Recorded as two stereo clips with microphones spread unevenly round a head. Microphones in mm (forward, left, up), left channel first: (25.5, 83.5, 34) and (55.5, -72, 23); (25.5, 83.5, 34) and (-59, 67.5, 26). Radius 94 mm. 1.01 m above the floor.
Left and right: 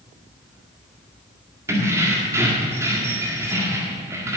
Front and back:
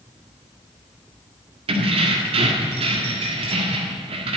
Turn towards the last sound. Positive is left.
turn(degrees=-155)